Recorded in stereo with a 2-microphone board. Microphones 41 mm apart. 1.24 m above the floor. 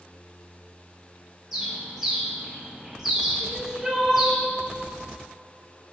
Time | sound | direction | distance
1.5 | a bird | 5° right (ahead or behind) | 1.4 m
3.4 | crying | 15° right (ahead or behind) | 1.1 m